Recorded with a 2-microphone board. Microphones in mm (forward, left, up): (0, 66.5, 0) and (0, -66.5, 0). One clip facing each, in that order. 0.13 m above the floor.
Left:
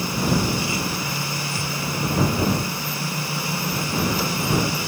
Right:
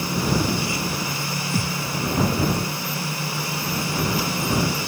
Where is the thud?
65° right (ahead or behind).